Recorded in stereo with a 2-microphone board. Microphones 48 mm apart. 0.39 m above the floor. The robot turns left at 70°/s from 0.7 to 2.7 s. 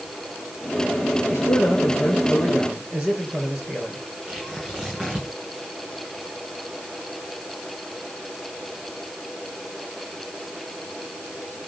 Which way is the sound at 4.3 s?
20° right (ahead or behind).